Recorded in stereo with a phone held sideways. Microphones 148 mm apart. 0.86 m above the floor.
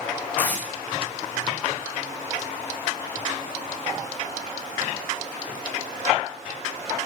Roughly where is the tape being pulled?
Centre.